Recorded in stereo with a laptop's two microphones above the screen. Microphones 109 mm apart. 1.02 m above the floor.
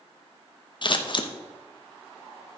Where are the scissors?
45° left (ahead or behind), 0.7 m.